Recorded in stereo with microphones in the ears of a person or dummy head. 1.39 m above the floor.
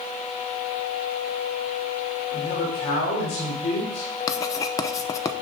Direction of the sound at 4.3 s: 25° left (ahead or behind).